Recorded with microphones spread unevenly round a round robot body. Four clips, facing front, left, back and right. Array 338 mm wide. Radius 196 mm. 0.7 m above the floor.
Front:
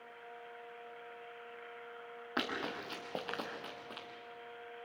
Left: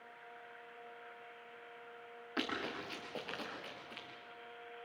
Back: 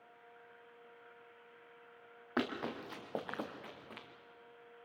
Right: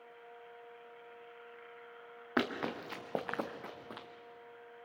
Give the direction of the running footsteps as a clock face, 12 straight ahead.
3 o'clock.